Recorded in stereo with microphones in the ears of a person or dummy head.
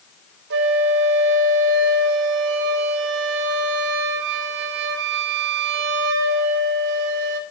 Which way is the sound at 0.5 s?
70° right (ahead or behind).